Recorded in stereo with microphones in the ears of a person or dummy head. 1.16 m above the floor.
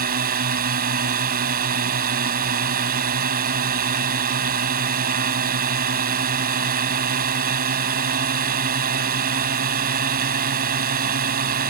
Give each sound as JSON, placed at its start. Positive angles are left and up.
{"t": 0.0, "sound": "a drone", "side_deg": -45}